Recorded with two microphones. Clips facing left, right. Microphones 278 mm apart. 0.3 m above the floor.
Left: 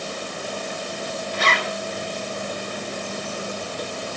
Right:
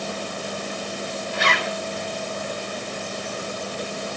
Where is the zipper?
65° right (ahead or behind), 2 m.